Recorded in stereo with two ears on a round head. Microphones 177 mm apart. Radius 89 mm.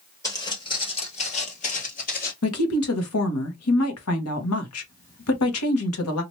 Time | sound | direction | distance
0.2 | footsteps | 20° left (ahead or behind) | 1.5 m
2.4 | a woman speaking | 85° left | 1.1 m